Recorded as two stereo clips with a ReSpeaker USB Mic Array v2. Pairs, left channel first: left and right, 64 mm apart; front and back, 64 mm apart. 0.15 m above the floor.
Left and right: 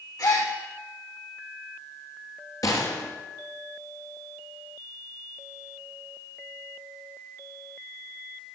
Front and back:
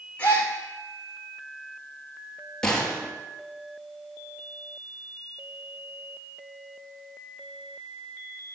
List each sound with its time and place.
0.2 s a gasp: 65° left, 4.5 m
2.6 s a gunshot: 75° left, 2.5 m